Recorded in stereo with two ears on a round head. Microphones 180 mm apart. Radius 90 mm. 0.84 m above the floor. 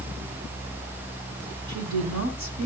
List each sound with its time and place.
1.7 s a woman speaking: 50° right (ahead or behind), 7.5 m